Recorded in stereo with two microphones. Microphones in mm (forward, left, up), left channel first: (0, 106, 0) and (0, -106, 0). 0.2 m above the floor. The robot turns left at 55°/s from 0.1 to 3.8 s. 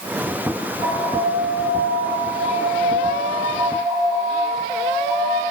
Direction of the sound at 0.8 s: 15° right.